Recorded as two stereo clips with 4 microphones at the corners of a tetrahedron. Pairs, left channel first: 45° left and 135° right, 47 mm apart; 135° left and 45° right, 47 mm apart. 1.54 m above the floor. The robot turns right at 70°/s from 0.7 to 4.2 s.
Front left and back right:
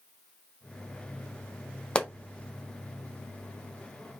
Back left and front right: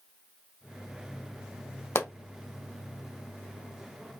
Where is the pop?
110° left, 0.5 m; by 2.1 s 120° left, 0.5 m.